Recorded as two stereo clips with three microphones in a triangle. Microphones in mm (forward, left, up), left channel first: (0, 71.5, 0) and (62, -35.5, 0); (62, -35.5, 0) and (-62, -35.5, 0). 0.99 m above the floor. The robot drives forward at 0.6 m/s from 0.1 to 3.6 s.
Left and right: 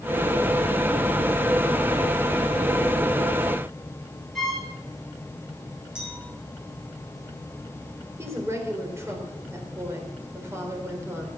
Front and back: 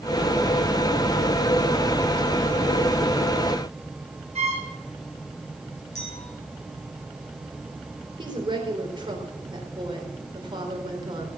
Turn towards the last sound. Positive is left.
turn(degrees=-130)